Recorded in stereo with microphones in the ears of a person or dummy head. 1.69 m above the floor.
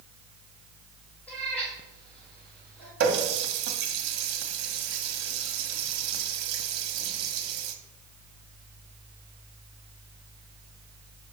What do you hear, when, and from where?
1.3 s a cat meowing: 5° left (ahead or behind), 3 m
3.0 s a running tap: 60° right (ahead or behind), 1.2 m